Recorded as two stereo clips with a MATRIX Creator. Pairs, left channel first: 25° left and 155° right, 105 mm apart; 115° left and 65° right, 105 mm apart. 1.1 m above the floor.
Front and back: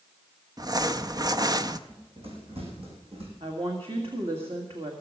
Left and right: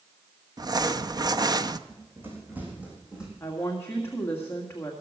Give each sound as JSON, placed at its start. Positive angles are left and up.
{"t": 0.6, "sound": "crumpling", "azimuth_deg": -110, "distance_m": 0.6}
{"t": 1.9, "sound": "running footsteps", "azimuth_deg": -135, "distance_m": 4.5}
{"t": 3.4, "sound": "a woman speaking", "azimuth_deg": 180, "distance_m": 1.8}